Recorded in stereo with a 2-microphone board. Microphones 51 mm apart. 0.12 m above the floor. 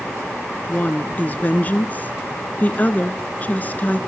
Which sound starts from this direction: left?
A woman speaking, at 0.7 s.